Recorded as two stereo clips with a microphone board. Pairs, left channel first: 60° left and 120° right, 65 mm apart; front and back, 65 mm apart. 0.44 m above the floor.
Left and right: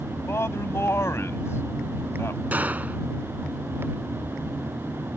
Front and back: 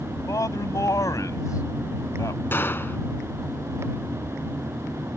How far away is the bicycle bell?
No bicycle bell in this recording.